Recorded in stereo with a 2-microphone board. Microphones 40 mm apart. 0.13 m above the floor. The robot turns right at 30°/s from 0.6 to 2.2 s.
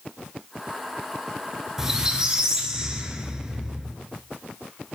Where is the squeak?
10° right (ahead or behind), 1.0 m; by 4.0 s 20° right (ahead or behind), 1.0 m.